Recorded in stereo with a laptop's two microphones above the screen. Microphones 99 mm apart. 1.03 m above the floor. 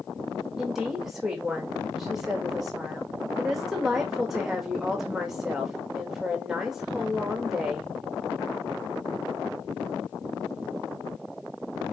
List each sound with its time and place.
0.6 s a woman speaking: 5° right (ahead or behind), 1.7 m